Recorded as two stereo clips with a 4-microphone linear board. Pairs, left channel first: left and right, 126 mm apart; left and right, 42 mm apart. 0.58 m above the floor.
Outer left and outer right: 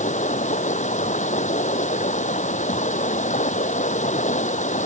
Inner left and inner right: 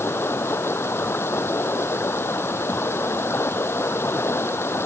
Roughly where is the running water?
Left.